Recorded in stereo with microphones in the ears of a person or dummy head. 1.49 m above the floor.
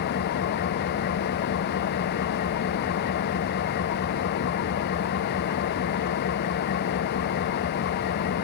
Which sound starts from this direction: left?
An engine running, at 0.0 s.